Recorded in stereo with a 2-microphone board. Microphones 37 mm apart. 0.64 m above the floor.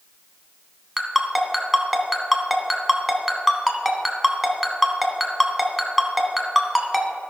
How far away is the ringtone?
About 1.2 m.